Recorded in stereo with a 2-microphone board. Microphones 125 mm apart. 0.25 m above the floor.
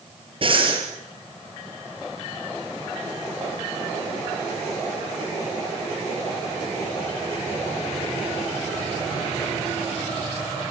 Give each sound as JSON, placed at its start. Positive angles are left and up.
{"t": 0.4, "sound": "breathing", "side_deg": -45, "distance_m": 6.0}